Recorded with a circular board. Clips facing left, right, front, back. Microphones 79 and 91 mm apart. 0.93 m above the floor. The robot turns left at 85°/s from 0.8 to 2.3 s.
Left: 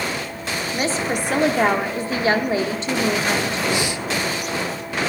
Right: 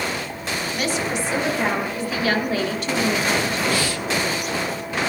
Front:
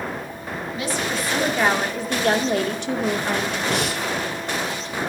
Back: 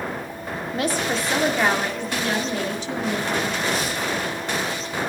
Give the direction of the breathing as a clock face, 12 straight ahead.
11 o'clock.